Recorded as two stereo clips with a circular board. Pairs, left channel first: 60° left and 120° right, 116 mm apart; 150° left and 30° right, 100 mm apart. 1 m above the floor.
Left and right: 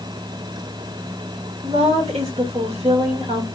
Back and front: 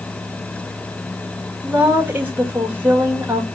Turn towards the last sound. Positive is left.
turn(degrees=-100)